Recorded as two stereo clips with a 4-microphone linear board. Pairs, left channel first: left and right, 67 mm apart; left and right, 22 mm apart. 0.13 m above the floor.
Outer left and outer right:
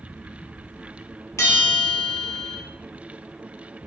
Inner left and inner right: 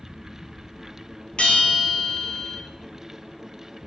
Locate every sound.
1.4 s a bell: 50° left (ahead or behind), 0.7 m